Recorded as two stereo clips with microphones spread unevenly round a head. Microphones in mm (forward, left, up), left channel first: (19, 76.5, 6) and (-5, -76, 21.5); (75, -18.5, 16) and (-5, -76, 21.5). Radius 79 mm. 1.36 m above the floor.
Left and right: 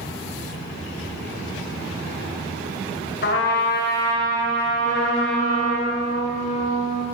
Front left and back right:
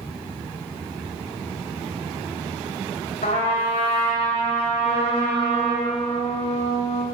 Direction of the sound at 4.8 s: 35° left.